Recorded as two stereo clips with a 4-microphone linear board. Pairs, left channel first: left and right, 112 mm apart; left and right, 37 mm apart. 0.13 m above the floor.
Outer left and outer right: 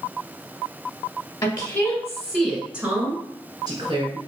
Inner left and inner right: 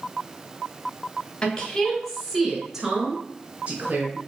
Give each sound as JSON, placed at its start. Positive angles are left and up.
{"t": 1.4, "sound": "a woman speaking", "side_deg": 35, "distance_m": 1.7}